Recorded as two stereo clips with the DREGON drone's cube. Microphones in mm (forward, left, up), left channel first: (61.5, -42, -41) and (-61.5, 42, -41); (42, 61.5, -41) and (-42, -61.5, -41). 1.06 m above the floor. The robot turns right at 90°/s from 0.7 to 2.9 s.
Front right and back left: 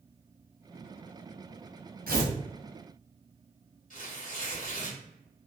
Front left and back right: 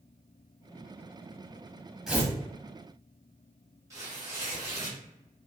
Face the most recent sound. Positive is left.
turn(degrees=-55)